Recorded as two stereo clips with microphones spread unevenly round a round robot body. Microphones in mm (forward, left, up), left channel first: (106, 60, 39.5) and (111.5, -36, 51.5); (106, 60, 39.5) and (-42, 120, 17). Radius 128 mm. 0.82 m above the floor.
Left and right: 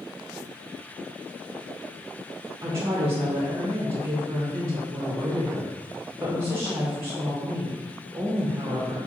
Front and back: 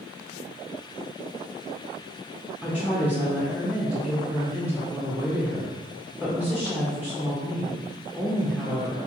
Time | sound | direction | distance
2.6 | a woman speaking | 140° right | 0.6 m